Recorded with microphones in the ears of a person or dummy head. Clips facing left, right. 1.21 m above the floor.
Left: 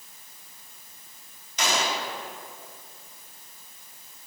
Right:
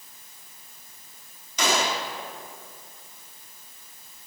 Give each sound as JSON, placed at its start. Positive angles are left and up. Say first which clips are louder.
{"t": 1.6, "sound": "a gunshot", "louder": "right 2 dB", "side_deg": -80, "distance_m": 3.0}